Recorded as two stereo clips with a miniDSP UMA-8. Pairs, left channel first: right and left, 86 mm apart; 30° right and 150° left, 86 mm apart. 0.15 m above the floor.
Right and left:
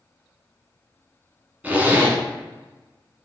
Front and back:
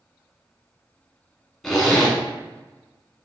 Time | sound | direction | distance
1.6 | a zipper | 55° left | 1.1 m